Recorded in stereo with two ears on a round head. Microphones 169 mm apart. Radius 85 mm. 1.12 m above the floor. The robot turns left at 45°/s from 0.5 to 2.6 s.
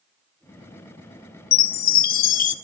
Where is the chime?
100° left, 0.5 m; by 2.5 s 55° left, 0.5 m.